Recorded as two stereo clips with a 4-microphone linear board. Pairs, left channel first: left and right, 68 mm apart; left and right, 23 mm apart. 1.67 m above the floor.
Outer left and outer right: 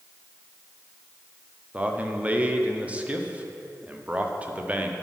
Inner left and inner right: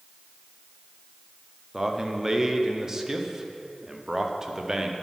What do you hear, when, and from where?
1.7 s a man speaking: 20° right (ahead or behind), 0.9 m